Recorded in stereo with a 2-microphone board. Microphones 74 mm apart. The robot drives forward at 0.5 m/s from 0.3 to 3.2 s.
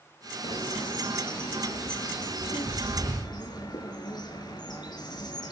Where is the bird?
75° left (ahead or behind), 4 m; by 5.5 s 65° left (ahead or behind), 4.5 m.